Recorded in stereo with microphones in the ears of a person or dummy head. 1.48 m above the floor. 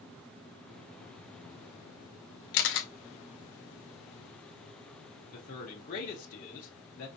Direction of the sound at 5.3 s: 40° left (ahead or behind).